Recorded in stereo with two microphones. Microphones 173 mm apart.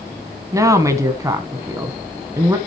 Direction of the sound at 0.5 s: 20° right (ahead or behind).